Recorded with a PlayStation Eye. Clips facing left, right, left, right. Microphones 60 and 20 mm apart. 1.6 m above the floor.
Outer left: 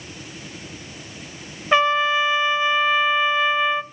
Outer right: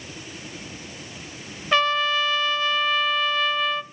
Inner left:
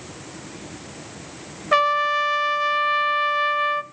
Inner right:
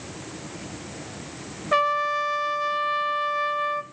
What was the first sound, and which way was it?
A trumpet, 20° left (ahead or behind).